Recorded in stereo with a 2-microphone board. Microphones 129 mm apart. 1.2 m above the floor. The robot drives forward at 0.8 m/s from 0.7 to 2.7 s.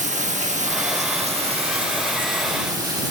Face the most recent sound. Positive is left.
turn(degrees=-35)  # may be behind; listen again after turning